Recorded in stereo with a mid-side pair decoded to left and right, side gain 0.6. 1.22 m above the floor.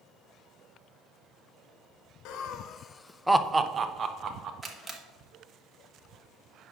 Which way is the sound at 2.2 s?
70° left.